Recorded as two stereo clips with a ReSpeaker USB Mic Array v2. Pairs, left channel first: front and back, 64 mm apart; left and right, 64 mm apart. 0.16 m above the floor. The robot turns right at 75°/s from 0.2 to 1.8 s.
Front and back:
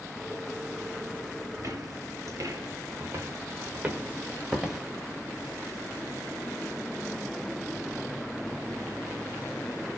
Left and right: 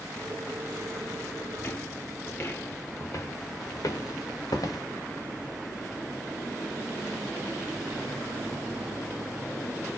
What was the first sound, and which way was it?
Footsteps, 140° left.